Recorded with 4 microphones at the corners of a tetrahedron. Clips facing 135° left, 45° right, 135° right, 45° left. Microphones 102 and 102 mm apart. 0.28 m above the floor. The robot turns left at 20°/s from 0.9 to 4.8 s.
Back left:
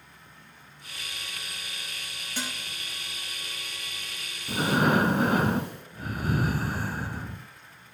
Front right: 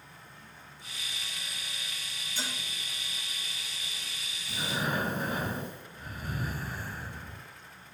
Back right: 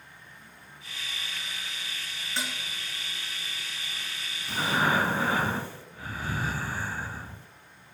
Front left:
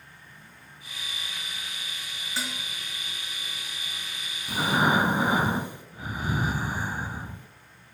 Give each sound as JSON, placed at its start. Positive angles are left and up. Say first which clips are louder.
{"t": 2.4, "sound": "dishes clattering", "louder": "back left 3 dB, even", "azimuth_deg": 135, "distance_m": 3.5}
{"t": 4.5, "sound": "breathing", "louder": "back left 10 dB, front left 3 dB", "azimuth_deg": 125, "distance_m": 0.6}